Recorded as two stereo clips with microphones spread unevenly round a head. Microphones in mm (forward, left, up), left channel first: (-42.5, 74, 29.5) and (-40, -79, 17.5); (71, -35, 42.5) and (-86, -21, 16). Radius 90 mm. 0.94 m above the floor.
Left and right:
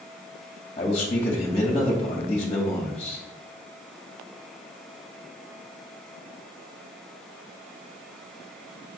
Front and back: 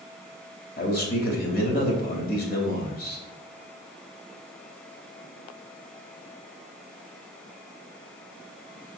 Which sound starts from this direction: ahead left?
A man speaking, at 0.8 s.